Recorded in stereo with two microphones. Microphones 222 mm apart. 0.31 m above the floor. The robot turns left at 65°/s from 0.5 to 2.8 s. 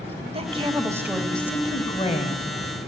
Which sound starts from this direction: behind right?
A woman speaking, at 0.3 s.